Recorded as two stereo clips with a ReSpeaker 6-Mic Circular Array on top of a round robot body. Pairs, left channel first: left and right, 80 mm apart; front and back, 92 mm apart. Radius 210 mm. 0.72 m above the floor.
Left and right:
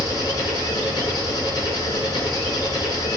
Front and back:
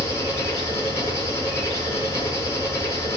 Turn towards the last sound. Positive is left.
turn(degrees=60)